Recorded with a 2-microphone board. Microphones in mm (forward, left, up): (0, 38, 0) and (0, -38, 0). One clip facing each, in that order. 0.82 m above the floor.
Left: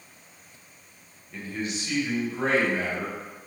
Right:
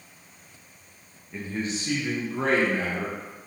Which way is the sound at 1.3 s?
15° right (ahead or behind).